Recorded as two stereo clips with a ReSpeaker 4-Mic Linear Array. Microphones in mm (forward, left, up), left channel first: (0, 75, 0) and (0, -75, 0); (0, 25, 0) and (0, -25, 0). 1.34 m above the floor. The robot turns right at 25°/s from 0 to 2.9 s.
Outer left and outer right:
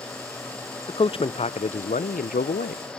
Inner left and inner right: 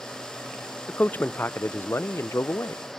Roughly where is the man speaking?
Ahead left.